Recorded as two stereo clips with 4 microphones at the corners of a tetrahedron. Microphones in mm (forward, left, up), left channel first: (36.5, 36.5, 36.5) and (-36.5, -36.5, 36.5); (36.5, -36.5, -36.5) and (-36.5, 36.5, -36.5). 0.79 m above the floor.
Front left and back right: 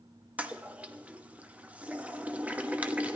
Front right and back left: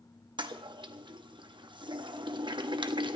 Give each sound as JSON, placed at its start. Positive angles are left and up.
{"t": 0.4, "sound": "a toilet flushing", "azimuth_deg": 155, "distance_m": 1.1}